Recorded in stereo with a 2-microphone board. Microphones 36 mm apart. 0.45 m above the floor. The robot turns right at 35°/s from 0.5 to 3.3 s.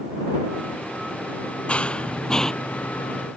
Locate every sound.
1.7 s running footsteps: 40° left (ahead or behind); by 2.5 s 20° left (ahead or behind)